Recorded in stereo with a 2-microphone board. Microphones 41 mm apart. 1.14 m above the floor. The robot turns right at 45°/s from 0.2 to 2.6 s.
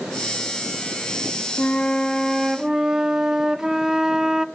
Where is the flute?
150° left, 0.8 m; by 4.5 s 165° right, 0.8 m.